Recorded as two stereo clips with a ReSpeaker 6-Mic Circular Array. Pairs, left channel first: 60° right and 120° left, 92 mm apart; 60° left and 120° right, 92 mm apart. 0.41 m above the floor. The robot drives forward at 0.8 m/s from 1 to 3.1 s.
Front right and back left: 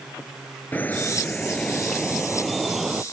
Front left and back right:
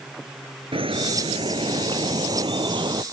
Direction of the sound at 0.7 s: 130° right.